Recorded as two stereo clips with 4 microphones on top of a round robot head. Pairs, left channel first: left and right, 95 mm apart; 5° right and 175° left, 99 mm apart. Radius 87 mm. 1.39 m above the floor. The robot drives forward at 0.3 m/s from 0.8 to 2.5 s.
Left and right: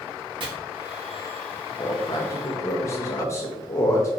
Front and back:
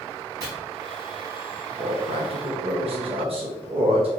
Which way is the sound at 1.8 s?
140° left.